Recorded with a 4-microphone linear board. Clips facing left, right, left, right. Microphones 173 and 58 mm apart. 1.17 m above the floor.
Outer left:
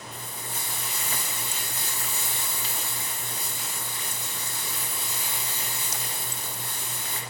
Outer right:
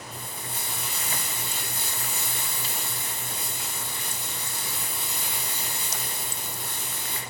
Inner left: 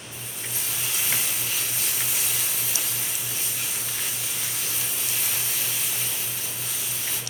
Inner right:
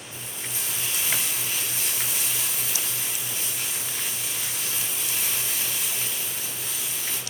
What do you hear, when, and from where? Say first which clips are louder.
0.1 s frying: outer right 1 dB, even; 30° right (ahead or behind), 1.5 m